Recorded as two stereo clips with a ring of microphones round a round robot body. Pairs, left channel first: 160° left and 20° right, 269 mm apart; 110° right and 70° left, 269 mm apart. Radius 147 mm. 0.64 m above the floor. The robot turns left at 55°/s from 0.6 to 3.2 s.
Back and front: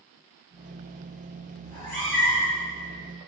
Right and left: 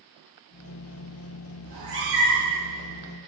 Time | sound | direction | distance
1.6 | a cat meowing | 140° left | 1.8 m